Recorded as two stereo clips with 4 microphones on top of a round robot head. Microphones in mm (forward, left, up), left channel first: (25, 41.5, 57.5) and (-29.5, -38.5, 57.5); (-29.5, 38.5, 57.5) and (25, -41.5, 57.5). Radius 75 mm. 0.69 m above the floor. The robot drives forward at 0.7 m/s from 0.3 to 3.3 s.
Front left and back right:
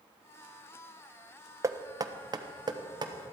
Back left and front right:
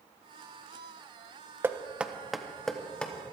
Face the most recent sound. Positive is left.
turn(degrees=-160)